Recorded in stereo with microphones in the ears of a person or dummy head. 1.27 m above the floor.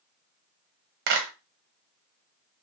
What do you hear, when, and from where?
1.1 s a clap: 55° right (ahead or behind), 0.7 m